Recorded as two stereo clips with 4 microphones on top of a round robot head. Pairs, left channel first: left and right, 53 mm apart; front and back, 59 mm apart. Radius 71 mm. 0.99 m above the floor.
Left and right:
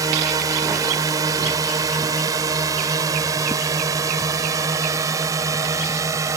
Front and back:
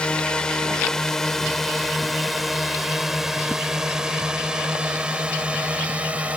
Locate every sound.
0.0 s a drone: 75° right; by 6.4 s 110° right